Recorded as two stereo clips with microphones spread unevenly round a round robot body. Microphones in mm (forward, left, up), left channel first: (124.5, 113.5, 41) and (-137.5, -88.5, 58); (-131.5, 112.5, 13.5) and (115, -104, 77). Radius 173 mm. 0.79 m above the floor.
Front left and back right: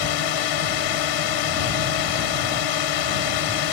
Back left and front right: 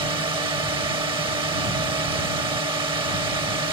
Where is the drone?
35° left.